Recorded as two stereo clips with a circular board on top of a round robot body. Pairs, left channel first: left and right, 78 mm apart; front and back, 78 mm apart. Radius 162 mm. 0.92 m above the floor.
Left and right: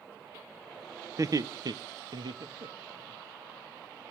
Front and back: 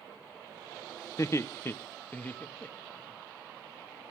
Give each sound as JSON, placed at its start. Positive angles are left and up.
{"t": 1.2, "sound": "laughter", "azimuth_deg": -45, "distance_m": 0.8}